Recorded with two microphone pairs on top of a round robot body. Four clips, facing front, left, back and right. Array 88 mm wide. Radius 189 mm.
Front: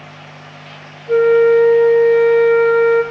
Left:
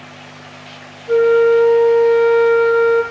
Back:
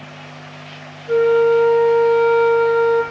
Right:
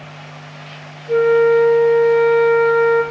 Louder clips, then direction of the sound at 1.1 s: Left 1 dB, front 3 dB; 140° left.